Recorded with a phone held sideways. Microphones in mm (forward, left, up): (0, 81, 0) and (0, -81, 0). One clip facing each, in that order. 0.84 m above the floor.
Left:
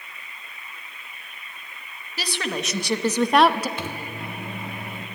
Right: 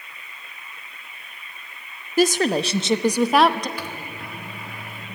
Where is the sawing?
I don't hear sawing.